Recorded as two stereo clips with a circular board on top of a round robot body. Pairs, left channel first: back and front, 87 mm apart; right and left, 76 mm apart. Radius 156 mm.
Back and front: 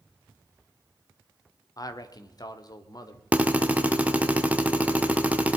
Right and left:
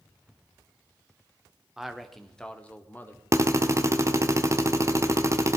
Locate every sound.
1.8 s a man speaking: 170° left, 1.4 m; by 3.2 s 150° right, 1.7 m
3.3 s a drill: 65° left, 1.4 m